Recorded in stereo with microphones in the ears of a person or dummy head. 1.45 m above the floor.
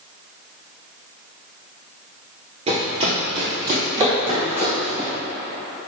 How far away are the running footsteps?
About 2.0 m.